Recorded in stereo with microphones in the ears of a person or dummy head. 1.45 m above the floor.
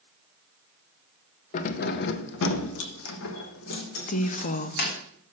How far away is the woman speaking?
About 0.6 m.